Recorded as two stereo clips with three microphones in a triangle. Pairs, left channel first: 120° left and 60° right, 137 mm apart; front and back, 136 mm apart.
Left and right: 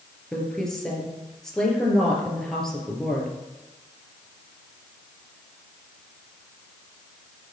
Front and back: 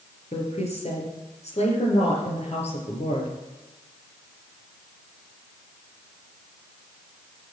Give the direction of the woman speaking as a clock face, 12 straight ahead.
11 o'clock.